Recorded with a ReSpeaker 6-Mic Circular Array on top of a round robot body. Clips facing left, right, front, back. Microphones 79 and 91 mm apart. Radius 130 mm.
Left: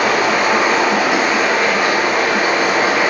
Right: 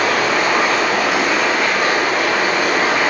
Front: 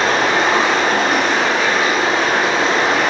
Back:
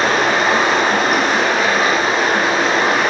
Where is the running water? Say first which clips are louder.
Left 2 dB, even; 125° left, 3 m.